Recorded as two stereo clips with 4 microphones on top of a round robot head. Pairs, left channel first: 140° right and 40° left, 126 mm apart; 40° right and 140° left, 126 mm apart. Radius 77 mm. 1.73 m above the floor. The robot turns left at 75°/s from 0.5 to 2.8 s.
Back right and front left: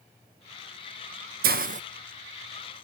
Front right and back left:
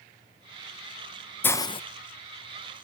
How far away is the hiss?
About 0.6 m.